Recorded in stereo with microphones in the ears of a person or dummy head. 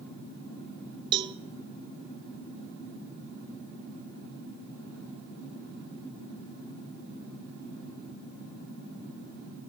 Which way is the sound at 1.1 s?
20° right (ahead or behind).